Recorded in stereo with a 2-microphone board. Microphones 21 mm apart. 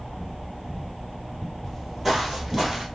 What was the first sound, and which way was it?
Footsteps, 5° left (ahead or behind).